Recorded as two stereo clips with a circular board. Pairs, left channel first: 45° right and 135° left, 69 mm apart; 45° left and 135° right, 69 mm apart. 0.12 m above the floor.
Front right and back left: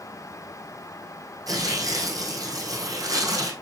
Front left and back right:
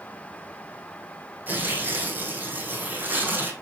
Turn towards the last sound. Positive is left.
turn(degrees=165)